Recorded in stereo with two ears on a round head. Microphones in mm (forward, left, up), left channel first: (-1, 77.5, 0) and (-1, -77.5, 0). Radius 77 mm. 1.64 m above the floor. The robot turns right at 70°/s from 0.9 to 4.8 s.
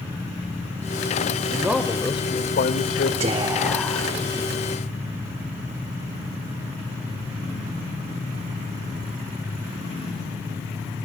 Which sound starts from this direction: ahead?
A man speaking, at 1.5 s.